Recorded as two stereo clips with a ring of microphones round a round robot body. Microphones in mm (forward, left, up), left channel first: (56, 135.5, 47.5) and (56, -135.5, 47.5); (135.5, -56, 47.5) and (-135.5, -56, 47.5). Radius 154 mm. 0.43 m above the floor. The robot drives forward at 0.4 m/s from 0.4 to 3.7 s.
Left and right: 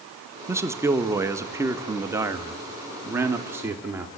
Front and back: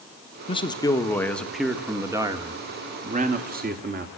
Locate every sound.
0.5 s a man speaking: 25° right, 1.4 m; by 4.1 s 165° right, 1.6 m